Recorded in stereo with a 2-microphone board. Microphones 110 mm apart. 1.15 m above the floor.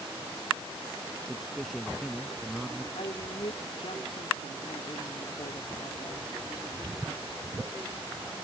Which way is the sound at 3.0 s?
75° left (ahead or behind).